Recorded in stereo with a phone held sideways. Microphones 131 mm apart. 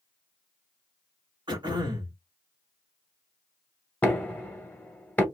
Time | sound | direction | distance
1.5 | throat clearing | 35° right (ahead or behind) | 1.5 m
4.0 | knocking | 10° left (ahead or behind) | 0.6 m